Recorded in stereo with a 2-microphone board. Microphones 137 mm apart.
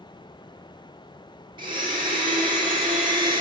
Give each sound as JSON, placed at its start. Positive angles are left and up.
{"t": 1.6, "sound": "a blender", "side_deg": -35, "distance_m": 5.5}